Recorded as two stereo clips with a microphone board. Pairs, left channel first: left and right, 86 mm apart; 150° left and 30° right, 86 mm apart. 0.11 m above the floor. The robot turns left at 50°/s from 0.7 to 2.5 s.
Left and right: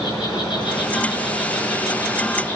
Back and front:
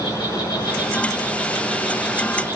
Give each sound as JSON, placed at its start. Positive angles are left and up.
{"t": 0.0, "sound": "an insect", "azimuth_deg": 110, "distance_m": 7.5}